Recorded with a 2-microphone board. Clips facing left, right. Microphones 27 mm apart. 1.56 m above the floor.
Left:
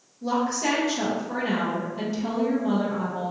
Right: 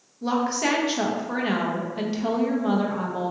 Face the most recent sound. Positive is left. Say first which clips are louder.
# right 1 dB
turn(degrees=-40)  # may be behind; listen again after turning